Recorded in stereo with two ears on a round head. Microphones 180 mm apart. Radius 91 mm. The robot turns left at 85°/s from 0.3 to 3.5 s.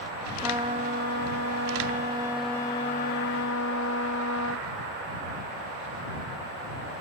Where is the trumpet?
10° right; by 4.7 s 90° left.